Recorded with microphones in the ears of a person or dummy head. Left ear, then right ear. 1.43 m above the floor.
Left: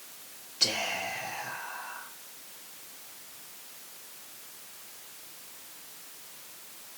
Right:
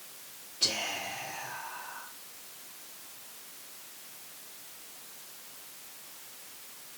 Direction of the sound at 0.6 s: 50° left (ahead or behind).